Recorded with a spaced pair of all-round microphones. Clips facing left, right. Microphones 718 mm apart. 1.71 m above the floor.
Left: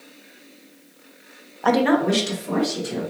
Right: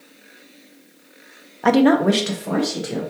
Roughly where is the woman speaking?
Right.